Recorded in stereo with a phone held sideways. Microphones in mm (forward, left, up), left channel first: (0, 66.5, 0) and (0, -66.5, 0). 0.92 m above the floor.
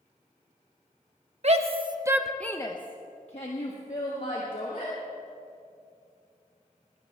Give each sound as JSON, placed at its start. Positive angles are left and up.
{"t": 1.4, "sound": "a shout", "side_deg": -55, "distance_m": 1.3}